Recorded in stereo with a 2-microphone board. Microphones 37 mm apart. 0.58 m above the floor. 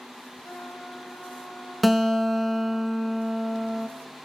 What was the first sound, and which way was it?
A trumpet, 65° left (ahead or behind).